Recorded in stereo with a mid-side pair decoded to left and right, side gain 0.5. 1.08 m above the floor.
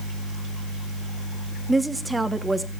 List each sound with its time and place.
1.7 s a woman speaking: 20° right, 1.3 m